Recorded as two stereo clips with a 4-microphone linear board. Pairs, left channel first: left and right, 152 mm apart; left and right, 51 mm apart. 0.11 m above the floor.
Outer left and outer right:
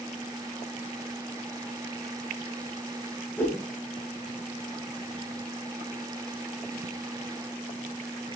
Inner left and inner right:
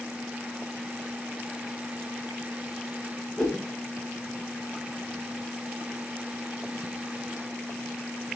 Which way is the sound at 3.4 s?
15° left (ahead or behind).